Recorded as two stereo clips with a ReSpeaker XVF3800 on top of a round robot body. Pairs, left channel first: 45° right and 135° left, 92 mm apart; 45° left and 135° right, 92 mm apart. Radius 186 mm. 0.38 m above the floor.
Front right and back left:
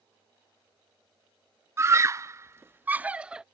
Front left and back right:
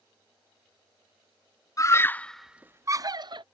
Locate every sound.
1.8 s a scream: 85° left; by 3.4 s 145° right